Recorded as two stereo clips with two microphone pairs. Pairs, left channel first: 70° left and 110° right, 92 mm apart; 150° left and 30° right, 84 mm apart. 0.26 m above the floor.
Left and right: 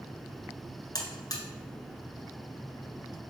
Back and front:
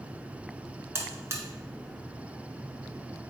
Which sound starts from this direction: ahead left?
A buzzer, at 0.9 s.